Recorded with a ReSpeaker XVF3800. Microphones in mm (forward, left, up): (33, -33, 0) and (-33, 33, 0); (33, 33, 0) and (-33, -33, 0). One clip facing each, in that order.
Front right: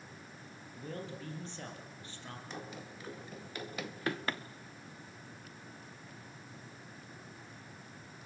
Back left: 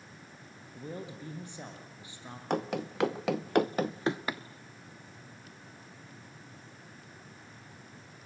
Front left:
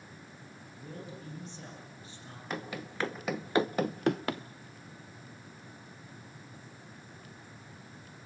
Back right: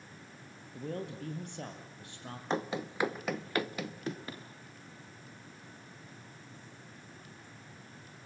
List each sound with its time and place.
0.7 s a man speaking: 150° right, 4.5 m
2.5 s running footsteps: 165° left, 1.5 m; by 4.4 s 50° left, 1.1 m